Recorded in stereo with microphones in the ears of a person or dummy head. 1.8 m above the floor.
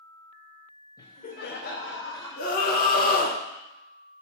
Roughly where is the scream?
Left.